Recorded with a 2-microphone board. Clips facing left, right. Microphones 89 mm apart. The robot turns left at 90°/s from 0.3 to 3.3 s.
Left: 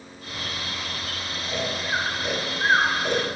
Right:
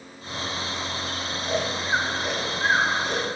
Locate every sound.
1.4 s snoring: 75° right (ahead or behind), 5 m; by 3.3 s 80° left, 5 m